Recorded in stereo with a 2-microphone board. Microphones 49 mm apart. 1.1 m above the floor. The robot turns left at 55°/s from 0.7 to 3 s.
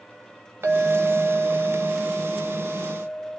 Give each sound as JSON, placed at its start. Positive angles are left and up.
{"t": 0.6, "sound": "a clink", "azimuth_deg": -60, "distance_m": 1.3}